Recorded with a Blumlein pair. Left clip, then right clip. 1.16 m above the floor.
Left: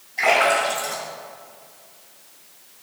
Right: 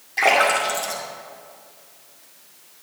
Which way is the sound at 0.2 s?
40° right.